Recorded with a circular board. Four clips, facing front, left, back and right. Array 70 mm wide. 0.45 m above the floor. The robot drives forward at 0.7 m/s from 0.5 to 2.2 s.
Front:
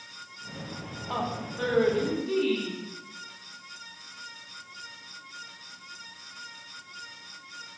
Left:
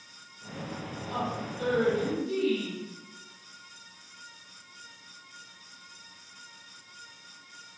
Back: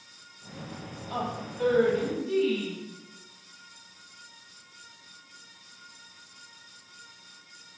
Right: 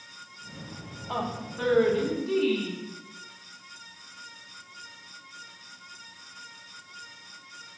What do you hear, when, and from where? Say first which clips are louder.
1.1 s a woman speaking: right 1 dB, front 1 dB; 45° right, 3.5 m; by 2.8 s 55° right, 3 m